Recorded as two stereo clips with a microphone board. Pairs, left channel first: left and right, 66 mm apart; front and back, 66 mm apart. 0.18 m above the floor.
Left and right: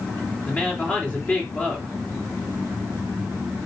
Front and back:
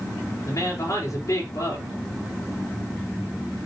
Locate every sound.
0.5 s a woman speaking: 30° left, 3.5 m